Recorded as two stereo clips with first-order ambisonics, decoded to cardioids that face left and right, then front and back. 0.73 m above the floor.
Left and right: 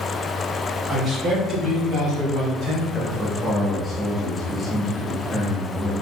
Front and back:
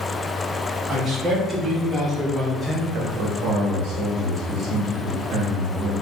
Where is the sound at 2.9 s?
175° right, 1.2 m.